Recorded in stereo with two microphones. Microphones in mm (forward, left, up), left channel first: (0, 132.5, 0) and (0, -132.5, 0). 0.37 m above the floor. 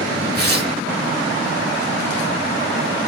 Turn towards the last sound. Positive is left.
turn(degrees=-40)  # may be behind; listen again after turning